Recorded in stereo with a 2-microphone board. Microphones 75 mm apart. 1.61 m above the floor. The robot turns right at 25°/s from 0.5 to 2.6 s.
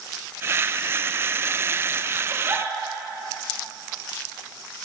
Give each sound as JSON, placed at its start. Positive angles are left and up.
{"t": 2.3, "sound": "a giggle", "side_deg": -40, "distance_m": 2.0}